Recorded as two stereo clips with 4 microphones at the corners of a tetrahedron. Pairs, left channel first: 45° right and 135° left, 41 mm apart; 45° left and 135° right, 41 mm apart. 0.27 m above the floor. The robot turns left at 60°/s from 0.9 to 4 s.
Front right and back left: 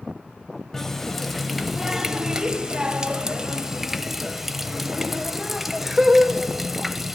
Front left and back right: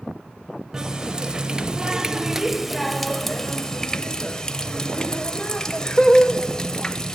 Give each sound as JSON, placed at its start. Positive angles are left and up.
{"t": 0.7, "sound": "a running tap", "azimuth_deg": -105, "distance_m": 0.6}